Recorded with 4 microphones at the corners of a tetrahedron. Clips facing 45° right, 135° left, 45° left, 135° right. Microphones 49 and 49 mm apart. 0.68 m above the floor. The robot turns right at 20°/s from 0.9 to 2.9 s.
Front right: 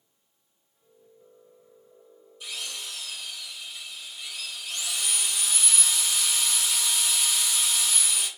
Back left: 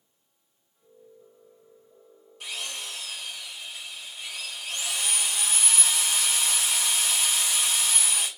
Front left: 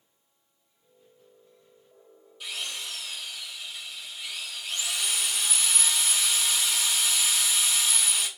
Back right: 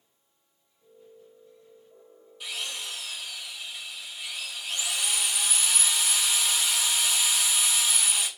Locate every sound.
2.4 s a drill: 135° left, 3 m; by 8.3 s 145° left, 3 m